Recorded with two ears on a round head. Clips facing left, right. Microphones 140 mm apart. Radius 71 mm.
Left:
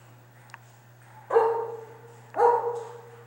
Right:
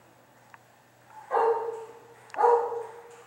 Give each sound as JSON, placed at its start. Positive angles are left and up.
{"t": 1.3, "sound": "a dog barking", "side_deg": 65, "distance_m": 2.0}